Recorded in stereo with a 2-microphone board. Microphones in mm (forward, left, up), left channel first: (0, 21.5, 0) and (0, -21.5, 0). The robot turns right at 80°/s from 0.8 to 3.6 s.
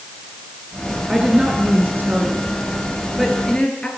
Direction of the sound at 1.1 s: 5° right (ahead or behind).